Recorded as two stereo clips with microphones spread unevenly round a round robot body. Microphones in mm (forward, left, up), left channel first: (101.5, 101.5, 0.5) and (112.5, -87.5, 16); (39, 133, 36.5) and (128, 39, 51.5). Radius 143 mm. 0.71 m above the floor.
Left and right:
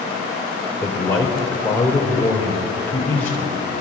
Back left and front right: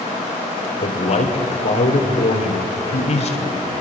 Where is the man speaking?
175° left, 3 m.